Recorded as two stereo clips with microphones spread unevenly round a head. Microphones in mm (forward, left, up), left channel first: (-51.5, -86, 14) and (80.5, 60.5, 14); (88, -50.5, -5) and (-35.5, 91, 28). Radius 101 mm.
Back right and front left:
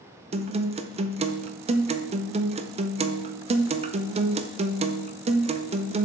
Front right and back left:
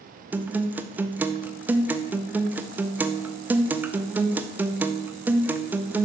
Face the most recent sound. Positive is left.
turn(degrees=40)